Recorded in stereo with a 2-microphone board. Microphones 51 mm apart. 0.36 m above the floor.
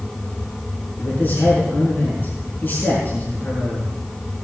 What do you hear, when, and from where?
1.0 s a man speaking: 40° left (ahead or behind), 5 m